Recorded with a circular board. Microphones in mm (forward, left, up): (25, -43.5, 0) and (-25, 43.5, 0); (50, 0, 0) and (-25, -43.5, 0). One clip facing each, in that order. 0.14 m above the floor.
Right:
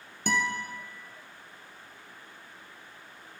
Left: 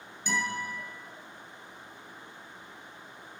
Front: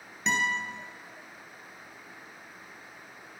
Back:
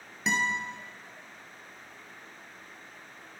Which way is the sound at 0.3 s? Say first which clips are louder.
Right 3 dB, even; 65° right.